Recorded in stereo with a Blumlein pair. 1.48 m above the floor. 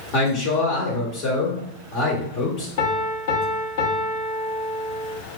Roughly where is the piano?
Ahead left.